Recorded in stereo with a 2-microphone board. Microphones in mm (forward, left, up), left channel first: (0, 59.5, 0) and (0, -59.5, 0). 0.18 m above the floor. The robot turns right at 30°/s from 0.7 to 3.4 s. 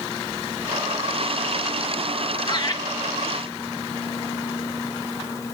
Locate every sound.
2.5 s laughter: 40° left (ahead or behind), 3 m; by 2.8 s 35° left (ahead or behind), 3 m